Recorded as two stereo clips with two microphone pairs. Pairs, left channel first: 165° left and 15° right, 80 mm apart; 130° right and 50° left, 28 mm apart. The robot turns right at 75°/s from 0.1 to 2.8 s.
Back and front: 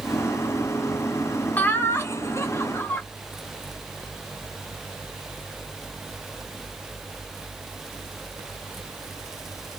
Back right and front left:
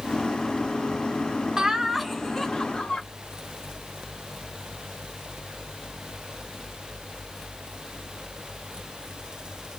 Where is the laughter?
110° left, 0.8 m; by 3.0 s 160° right, 0.8 m.